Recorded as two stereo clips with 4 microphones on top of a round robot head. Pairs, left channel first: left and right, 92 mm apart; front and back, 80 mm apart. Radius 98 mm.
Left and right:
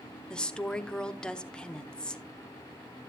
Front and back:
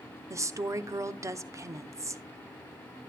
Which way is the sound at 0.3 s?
165° left.